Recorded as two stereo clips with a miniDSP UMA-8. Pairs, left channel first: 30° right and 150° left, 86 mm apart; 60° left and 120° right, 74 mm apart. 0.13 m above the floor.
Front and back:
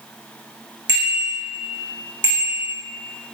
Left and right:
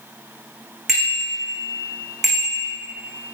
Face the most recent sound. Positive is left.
turn(degrees=-35)